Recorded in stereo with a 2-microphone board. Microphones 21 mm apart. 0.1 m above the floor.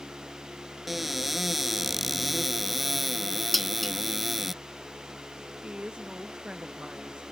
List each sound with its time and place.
0.9 s a cupboard door: 5° right (ahead or behind)
3.5 s dishes clattering: 5° left (ahead or behind)
5.6 s a woman speaking: 65° right (ahead or behind)